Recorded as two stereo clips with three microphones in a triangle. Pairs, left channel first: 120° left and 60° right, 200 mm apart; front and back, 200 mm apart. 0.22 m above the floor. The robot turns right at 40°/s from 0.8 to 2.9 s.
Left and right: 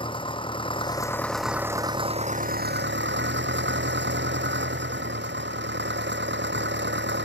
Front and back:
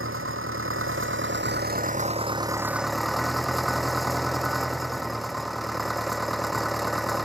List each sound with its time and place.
0.0 s an engine running: 175° right; by 7.2 s 90° right